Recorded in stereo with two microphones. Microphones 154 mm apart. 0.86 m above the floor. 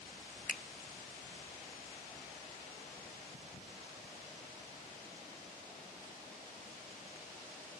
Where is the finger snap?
65° left (ahead or behind), 0.5 m.